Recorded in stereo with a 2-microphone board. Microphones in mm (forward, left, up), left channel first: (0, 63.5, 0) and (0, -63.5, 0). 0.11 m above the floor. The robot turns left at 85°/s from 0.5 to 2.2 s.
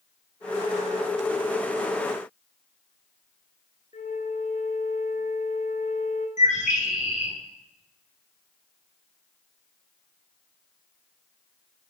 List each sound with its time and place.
3.9 s a flute: 75° left (ahead or behind), 3.5 m
6.4 s a bird: 70° left (ahead or behind), 7.5 m